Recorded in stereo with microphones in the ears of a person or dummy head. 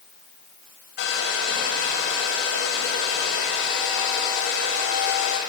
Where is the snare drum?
I don't hear a snare drum.